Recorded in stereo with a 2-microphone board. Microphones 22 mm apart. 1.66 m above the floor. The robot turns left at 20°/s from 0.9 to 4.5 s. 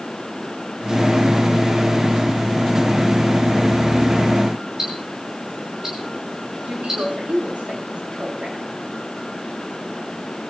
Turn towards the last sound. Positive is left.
turn(degrees=-75)  # may be behind; listen again after turning